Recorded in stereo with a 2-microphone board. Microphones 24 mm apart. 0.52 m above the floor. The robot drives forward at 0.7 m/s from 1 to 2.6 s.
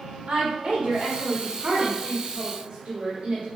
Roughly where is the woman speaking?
Right.